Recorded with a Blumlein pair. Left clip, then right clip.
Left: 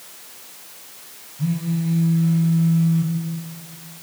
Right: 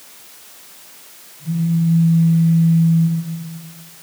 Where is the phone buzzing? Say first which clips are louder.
Right 4 dB; 40° left, 6 m.